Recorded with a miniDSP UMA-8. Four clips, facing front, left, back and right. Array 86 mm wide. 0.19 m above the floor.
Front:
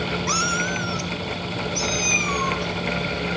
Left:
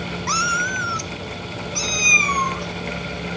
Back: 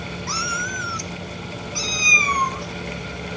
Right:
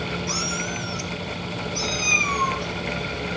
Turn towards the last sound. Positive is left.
turn(degrees=150)